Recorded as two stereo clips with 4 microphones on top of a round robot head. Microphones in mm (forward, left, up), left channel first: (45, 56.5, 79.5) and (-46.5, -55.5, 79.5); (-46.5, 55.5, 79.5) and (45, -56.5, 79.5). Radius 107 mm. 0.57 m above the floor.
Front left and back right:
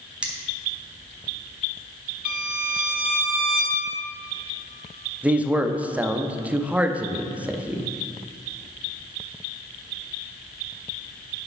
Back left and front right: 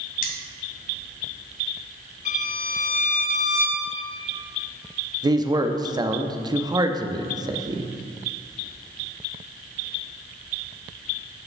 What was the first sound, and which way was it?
Cutlery clinking, 150° left.